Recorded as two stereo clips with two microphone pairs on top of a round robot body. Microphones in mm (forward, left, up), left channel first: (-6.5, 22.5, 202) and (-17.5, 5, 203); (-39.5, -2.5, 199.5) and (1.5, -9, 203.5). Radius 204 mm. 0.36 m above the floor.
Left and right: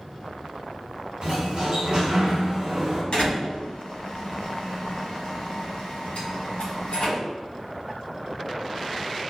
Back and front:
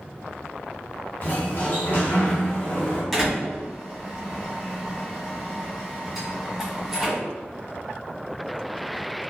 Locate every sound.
1.2 s a sliding door: 150° right, 1.1 m
3.1 s a door slam: 85° left, 1.2 m